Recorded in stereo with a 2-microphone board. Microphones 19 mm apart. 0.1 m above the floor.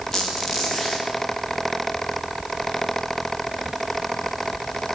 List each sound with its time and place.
0.1 s a squeak: 5° left (ahead or behind), 9.5 m